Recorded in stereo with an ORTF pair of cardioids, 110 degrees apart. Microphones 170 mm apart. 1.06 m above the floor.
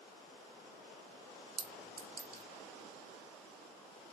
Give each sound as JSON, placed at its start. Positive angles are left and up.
{"t": 1.6, "sound": "a clink", "azimuth_deg": -30, "distance_m": 0.8}